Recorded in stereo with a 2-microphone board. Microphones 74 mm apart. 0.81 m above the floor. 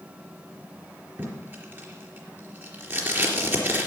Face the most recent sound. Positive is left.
turn(degrees=-30)  # may be behind; listen again after turning